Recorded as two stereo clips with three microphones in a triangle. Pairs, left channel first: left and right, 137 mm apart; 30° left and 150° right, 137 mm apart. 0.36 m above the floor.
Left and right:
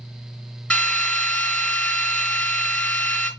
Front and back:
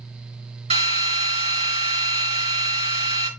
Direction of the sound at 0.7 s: 170° left.